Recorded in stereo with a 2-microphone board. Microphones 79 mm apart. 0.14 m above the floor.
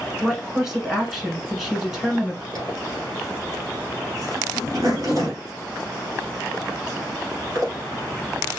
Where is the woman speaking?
5° right (ahead or behind), 1.3 m.